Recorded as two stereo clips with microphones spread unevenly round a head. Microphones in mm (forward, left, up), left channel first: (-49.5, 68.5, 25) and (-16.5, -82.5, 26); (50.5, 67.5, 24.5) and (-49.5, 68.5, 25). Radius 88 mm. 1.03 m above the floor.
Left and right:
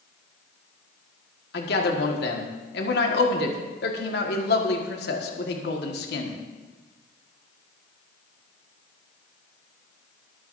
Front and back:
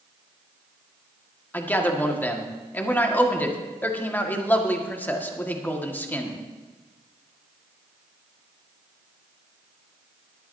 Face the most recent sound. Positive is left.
turn(degrees=70)